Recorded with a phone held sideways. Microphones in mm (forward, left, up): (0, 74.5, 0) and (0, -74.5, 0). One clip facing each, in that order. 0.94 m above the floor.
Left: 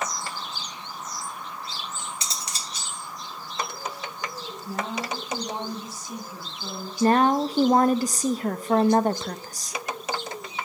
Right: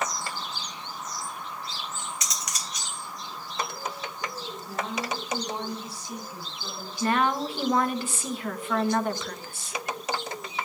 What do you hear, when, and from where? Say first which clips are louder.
2.2 s cutlery clinking: even; 30° left (ahead or behind), 1.1 m
4.7 s a woman speaking: left 1 dB; 50° left (ahead or behind), 6.5 m
7.0 s a woman speaking: left 6 dB; 40° left (ahead or behind), 0.8 m